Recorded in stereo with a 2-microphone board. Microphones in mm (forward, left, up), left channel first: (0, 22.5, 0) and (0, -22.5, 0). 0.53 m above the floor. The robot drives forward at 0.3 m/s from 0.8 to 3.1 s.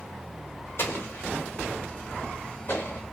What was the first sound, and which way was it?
An explosion, 55° left (ahead or behind).